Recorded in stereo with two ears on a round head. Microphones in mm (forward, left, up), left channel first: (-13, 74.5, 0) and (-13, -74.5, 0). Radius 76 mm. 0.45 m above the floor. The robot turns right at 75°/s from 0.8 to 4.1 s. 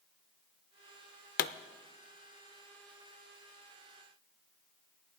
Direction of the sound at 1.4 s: 55° left (ahead or behind).